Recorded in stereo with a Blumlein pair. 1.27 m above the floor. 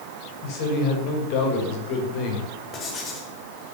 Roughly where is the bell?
No bell in this recording.